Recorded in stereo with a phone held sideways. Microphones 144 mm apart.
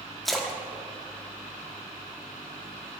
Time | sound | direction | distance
0.2 | a splash | centre (ahead or behind) | 0.9 m